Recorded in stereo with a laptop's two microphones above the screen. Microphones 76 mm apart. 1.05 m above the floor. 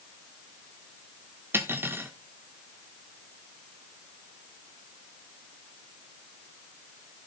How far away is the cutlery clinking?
About 1.6 m.